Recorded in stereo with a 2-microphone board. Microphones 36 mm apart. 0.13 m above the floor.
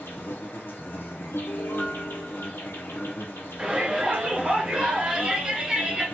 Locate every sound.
0.0 s an insect: 85° left, 0.7 m
1.3 s a piano: 75° left (ahead or behind), 0.6 m
3.6 s a shout: 20° right (ahead or behind), 1.3 m